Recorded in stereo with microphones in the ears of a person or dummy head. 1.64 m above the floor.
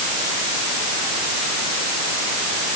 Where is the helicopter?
No helicopter in this recording.